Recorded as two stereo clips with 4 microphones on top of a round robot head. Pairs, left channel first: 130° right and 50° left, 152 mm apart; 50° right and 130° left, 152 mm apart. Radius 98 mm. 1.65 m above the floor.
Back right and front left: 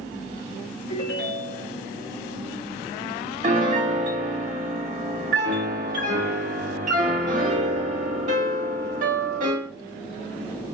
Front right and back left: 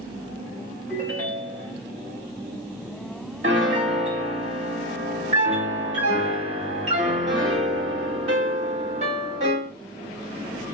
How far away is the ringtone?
About 1.8 m.